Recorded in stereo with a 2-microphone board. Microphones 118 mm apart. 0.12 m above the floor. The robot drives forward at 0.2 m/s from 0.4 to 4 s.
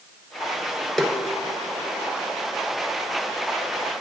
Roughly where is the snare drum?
Centre.